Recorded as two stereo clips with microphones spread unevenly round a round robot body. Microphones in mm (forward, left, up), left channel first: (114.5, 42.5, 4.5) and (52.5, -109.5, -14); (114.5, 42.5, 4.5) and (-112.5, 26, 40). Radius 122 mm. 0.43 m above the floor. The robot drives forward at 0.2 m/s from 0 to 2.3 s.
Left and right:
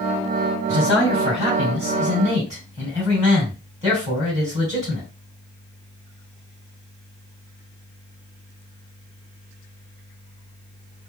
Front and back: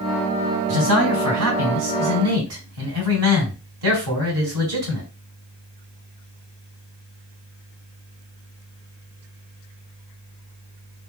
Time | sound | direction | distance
0.7 | a man speaking | 175° left | 2.5 m